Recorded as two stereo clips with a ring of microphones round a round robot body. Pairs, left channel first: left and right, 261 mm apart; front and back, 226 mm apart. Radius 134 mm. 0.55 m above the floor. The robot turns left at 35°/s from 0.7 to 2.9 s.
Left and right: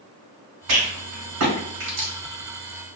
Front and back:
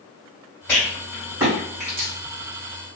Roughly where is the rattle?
Right.